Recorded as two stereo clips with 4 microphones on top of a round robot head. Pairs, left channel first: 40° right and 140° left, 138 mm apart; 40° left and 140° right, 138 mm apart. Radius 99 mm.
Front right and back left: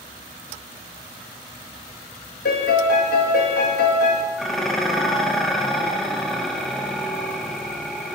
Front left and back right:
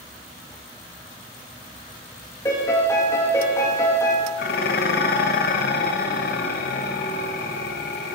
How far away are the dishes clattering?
About 0.6 m.